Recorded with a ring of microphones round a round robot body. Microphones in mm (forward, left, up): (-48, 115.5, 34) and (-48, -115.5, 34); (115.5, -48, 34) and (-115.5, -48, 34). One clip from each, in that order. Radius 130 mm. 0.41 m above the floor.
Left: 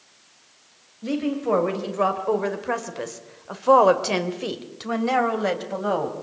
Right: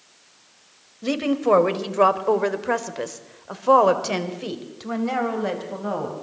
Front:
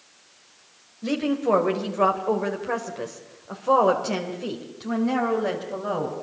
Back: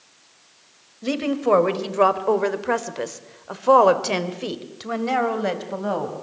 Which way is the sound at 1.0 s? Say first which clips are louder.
Right 4 dB, back 2 dB; 120° right.